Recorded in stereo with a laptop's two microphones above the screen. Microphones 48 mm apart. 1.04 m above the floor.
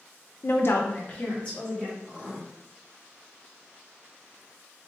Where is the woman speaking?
50° left (ahead or behind), 0.6 m; by 1.9 s 20° left (ahead or behind), 1.9 m.